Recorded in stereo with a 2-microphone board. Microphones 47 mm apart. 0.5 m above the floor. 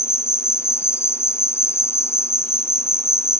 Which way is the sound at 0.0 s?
70° left (ahead or behind).